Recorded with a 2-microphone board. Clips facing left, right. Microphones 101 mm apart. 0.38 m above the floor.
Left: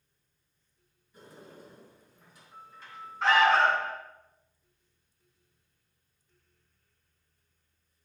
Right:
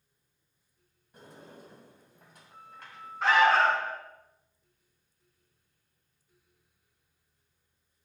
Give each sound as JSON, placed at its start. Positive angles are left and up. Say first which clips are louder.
{"t": 1.1, "sound": "a sliding door", "louder": "even", "side_deg": -60, "distance_m": 2.5}
{"t": 3.2, "sound": "an alarm", "louder": "even", "side_deg": -10, "distance_m": 2.0}